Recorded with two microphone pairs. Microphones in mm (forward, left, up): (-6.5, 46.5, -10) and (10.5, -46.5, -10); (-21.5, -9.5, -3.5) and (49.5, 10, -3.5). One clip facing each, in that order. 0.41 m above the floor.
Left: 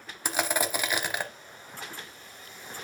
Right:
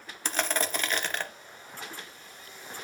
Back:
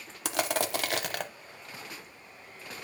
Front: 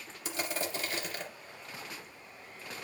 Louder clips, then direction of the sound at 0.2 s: Left 2 dB, back 7 dB; straight behind.